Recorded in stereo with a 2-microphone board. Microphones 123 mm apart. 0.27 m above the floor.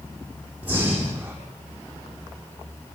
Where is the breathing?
10° right (ahead or behind), 7.5 m.